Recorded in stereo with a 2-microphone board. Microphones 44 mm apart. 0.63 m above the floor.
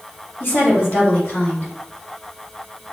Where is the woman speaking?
45° left (ahead or behind), 2 m.